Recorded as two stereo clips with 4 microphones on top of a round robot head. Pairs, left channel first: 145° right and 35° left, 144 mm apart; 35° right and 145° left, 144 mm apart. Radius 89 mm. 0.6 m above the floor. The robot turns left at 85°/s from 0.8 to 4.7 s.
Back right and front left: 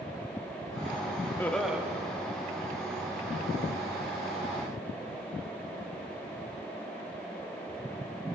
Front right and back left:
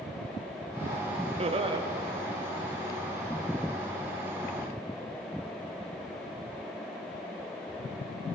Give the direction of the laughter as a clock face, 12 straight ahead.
7 o'clock.